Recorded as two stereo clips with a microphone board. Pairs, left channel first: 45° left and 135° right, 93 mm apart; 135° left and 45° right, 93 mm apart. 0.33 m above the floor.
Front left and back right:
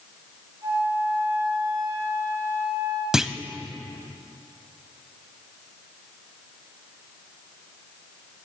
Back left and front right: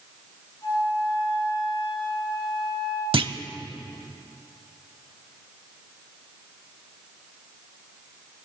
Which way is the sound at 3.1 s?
50° right.